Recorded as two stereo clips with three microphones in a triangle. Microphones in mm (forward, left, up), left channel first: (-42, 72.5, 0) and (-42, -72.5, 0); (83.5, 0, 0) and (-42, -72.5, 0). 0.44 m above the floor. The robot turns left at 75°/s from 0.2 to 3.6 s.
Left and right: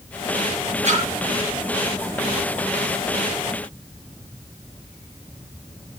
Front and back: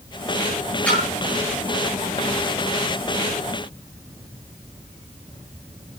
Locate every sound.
0.8 s a splash: 50° right, 9 m; by 1.1 s 65° right, 9 m